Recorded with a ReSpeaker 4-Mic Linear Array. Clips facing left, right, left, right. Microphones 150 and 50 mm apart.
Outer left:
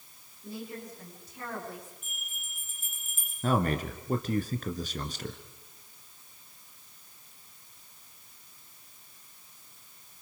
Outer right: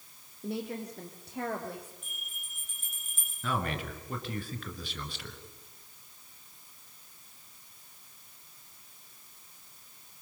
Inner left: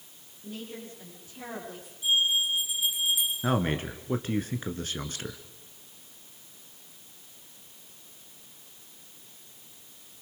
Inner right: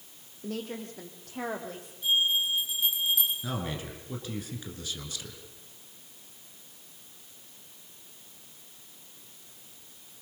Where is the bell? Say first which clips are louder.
Outer left 2 dB, inner left 1 dB; 5° left (ahead or behind), 7 m.